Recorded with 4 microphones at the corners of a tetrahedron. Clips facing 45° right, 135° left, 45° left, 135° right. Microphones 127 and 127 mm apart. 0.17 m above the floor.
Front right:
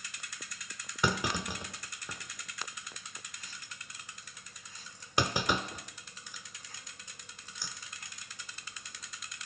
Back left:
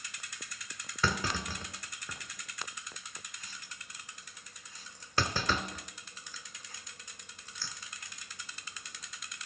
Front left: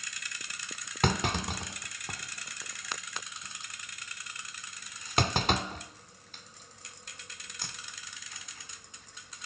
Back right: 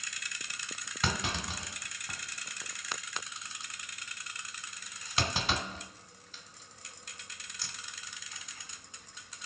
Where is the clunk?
25° left, 0.6 m.